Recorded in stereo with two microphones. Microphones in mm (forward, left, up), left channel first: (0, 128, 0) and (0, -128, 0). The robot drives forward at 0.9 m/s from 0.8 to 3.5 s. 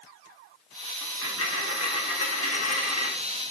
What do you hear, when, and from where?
1.0 s a dropped coin: 55° left (ahead or behind), 5 m; by 3.1 s 75° left (ahead or behind), 4 m